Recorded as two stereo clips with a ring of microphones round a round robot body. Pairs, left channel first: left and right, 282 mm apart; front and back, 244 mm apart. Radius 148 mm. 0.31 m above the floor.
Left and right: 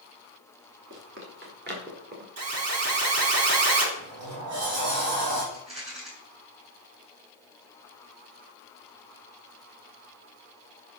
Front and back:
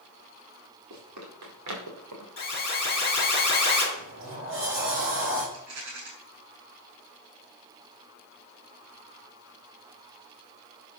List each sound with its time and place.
0.9 s running footsteps: 140° right, 5 m; by 2.3 s 150° right, 5 m
2.4 s an alarm: 55° right, 3.5 m
4.0 s a sliding door: 130° right, 5.5 m
5.5 s a rattle: 160° right, 4.5 m